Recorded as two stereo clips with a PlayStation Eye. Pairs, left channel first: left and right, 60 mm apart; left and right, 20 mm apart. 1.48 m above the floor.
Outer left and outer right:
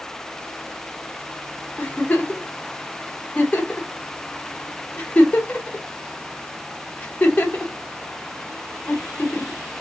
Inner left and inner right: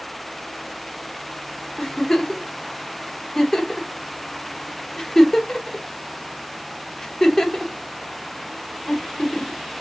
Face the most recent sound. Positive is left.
turn(degrees=25)  # may be behind; listen again after turning